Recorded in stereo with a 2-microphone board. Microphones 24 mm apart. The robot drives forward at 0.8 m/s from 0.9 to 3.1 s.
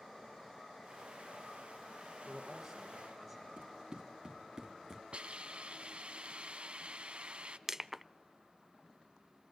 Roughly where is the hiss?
Right.